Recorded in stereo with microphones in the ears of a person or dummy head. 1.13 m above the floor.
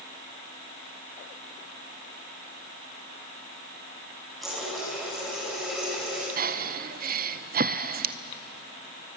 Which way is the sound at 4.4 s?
Centre (ahead or behind).